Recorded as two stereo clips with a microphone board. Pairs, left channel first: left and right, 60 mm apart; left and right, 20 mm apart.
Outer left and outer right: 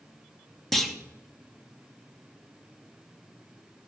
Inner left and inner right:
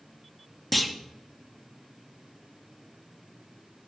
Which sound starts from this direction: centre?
A clunk, at 0.7 s.